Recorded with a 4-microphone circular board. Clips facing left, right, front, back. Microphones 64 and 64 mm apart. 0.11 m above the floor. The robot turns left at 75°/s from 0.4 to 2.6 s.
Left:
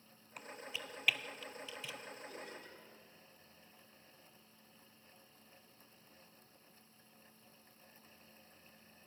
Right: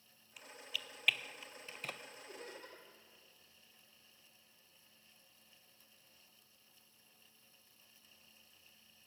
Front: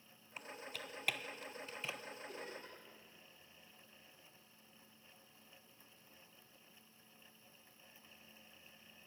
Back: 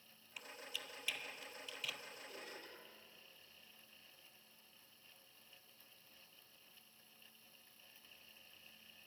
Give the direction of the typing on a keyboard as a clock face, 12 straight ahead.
10 o'clock.